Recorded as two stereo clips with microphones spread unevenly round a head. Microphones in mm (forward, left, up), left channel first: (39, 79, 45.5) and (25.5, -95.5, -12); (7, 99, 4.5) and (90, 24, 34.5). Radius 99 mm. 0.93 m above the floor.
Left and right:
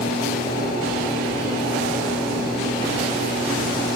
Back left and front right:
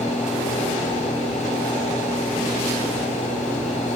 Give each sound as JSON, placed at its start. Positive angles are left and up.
{"t": 0.0, "sound": "a fan", "azimuth_deg": 120, "distance_m": 1.5}